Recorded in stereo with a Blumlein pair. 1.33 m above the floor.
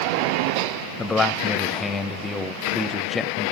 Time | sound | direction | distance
1.0 | a man speaking | 15° left | 1.5 m